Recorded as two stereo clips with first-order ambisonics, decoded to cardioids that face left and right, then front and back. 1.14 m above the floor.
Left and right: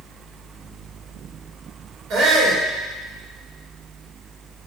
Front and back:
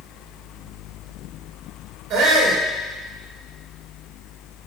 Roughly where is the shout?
Behind right.